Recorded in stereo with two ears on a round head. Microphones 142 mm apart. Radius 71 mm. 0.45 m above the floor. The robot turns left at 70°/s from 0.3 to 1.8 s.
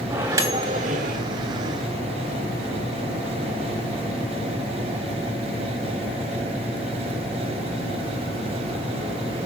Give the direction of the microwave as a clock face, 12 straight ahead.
1 o'clock.